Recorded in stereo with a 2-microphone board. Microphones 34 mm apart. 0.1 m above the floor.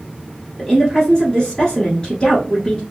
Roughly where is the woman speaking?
Left.